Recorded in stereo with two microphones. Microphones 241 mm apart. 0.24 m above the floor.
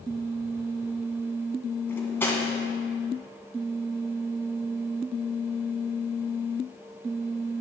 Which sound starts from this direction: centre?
Cutlery clinking, at 1.9 s.